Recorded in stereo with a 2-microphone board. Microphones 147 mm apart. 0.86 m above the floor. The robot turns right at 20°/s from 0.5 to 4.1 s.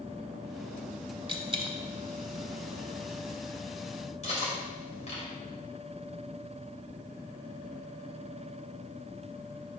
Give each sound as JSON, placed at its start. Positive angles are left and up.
{"t": 1.3, "sound": "a dropped coin", "side_deg": -35, "distance_m": 0.9}
{"t": 4.2, "sound": "cutlery clinking", "side_deg": 50, "distance_m": 2.5}